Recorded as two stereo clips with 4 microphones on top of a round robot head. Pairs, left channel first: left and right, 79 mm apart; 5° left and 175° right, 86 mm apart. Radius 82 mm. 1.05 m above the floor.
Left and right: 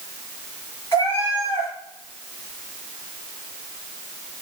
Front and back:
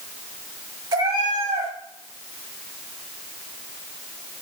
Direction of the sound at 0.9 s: 160° left.